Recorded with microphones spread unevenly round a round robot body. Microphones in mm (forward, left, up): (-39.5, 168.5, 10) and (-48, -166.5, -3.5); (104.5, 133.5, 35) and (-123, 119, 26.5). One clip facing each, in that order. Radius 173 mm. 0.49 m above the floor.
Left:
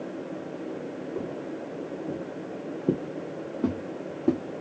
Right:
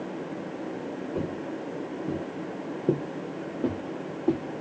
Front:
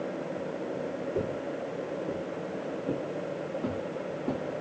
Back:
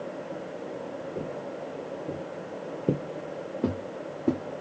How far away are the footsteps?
About 1.0 m.